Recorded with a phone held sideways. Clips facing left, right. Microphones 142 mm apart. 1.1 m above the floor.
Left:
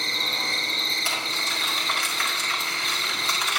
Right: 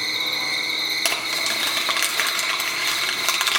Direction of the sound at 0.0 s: 5° left (ahead or behind).